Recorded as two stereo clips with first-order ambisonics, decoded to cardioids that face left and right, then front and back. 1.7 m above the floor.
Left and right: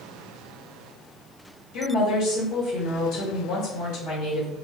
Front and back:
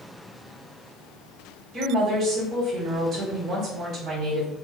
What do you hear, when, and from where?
1.7 s a woman speaking: 120° left, 1.7 m